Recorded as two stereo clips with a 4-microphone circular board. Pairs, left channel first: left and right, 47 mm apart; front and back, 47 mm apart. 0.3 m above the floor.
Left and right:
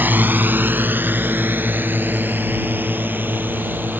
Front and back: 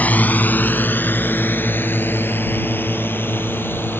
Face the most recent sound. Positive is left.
turn(degrees=-40)